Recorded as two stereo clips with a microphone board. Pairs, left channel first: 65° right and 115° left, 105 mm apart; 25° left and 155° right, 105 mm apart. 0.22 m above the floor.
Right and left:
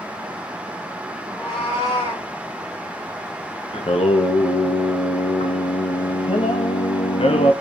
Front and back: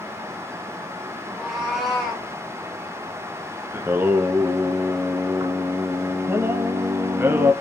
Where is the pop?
I don't hear a pop.